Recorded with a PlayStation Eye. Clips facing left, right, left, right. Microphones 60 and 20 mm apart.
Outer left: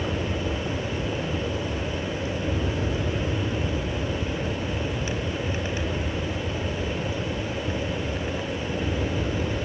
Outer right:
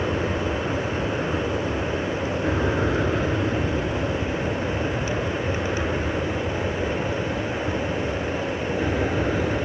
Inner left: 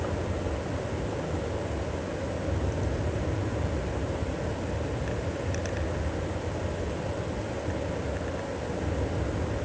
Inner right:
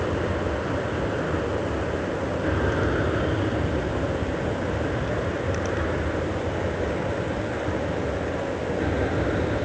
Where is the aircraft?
75° right (ahead or behind); by 9.7 s 55° right (ahead or behind).